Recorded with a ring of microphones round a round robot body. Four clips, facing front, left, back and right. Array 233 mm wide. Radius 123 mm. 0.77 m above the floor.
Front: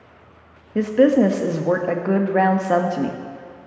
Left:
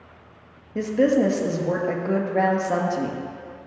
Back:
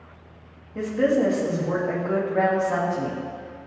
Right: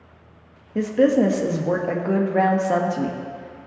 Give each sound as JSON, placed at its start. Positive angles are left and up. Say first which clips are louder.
{"t": 0.8, "sound": "a woman speaking", "louder": "right 2 dB, front 6 dB", "azimuth_deg": -15, "distance_m": 1.4}